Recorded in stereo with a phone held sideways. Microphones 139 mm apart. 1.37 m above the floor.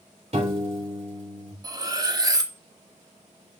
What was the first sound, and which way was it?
A piano, 50° right (ahead or behind).